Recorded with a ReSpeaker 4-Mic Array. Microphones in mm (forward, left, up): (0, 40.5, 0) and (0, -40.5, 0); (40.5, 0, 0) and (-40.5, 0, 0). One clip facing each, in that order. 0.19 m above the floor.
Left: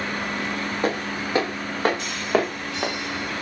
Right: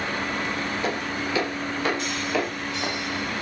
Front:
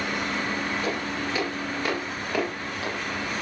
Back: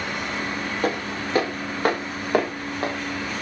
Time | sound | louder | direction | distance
0.8 | footsteps | left 2 dB, back 3 dB | 140° left | 6.5 m